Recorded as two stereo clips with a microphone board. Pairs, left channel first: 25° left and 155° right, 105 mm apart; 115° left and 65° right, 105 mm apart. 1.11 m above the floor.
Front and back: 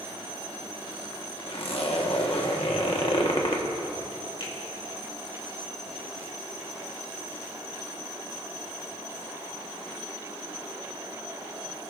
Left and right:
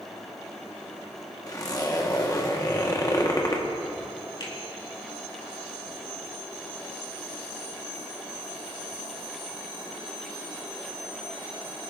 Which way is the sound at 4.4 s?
65° left.